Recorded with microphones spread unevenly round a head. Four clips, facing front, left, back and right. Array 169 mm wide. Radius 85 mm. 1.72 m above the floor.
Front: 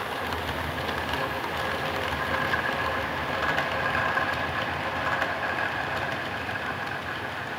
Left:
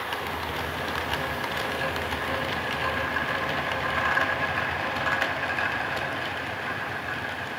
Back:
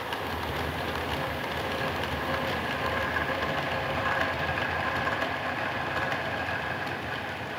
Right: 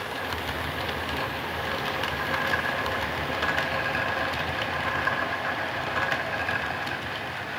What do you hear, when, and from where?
Only background noise.